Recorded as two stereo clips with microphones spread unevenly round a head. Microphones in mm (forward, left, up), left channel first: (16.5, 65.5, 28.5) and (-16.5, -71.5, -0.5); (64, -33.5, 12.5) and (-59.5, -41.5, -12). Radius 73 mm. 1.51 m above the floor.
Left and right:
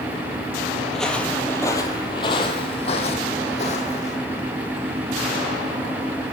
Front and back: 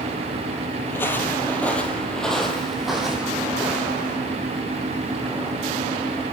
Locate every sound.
0.9 s footsteps: 10° left, 1.7 m; by 4.2 s 95° left, 3 m